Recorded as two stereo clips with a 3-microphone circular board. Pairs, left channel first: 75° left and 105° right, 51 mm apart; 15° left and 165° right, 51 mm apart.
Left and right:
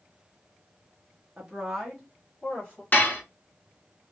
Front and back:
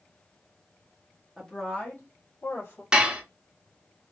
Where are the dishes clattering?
125° left, 0.7 m.